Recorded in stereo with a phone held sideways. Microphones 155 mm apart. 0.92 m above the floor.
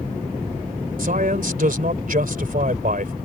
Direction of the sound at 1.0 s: 65° right (ahead or behind).